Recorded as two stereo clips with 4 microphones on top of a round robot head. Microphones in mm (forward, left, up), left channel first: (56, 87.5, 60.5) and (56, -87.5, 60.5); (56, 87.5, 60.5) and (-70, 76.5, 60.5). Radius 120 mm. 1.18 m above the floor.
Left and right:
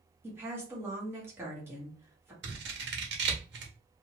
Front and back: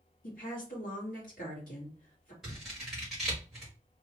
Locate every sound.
0.2 s a woman speaking: 10° right, 1.5 m
2.4 s scissors: 85° right, 0.9 m